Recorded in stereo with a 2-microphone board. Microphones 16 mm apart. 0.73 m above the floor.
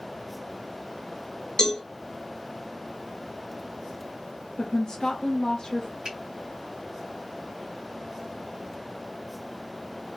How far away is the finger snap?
About 2.0 m.